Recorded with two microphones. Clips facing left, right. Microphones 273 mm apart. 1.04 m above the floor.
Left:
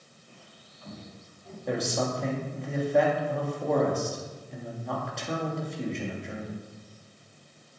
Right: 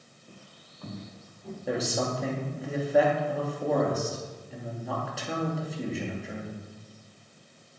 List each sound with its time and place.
0.3 s footsteps: 45° right (ahead or behind), 1.4 m; by 1.6 s 70° right (ahead or behind), 3 m
1.7 s a man speaking: 5° right (ahead or behind), 2 m